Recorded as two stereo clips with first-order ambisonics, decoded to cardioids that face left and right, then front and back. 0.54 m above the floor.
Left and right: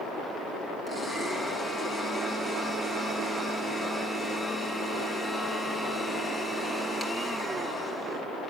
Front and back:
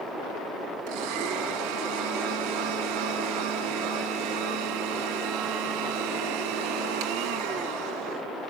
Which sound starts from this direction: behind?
A blender, at 0.9 s.